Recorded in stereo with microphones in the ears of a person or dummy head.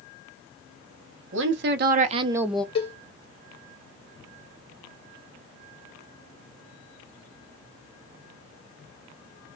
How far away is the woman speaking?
About 0.9 m.